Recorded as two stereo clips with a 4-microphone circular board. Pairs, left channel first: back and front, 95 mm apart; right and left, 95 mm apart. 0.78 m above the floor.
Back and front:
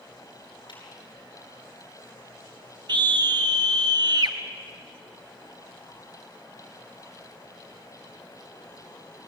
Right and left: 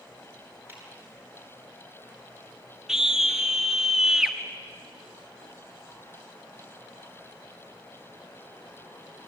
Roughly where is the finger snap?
Behind left.